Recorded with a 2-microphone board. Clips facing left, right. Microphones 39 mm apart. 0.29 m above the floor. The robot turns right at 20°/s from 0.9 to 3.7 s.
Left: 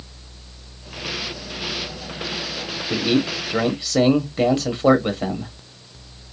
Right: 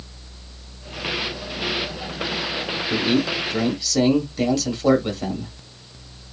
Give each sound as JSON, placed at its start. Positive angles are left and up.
{"t": 2.9, "sound": "a man speaking", "side_deg": 30, "distance_m": 1.1}